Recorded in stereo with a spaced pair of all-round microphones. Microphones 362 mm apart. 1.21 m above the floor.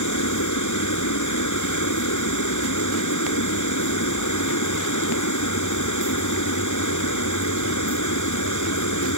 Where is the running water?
55° left (ahead or behind).